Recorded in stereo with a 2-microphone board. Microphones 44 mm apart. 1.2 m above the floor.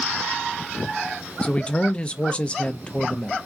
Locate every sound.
1.4 s a man speaking: 25° left (ahead or behind), 0.5 m